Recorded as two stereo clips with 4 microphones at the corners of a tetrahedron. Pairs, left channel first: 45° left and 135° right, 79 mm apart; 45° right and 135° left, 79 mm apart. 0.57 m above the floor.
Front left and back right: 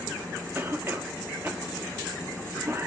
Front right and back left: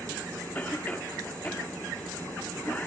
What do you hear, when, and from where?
0.6 s a cough: 95° right, 0.7 m